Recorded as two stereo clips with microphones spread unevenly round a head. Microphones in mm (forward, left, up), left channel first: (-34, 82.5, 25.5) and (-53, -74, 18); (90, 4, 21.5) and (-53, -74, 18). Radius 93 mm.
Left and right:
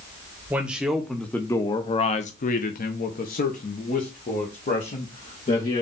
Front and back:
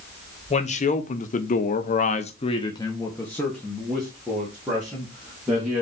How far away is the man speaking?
About 1.1 m.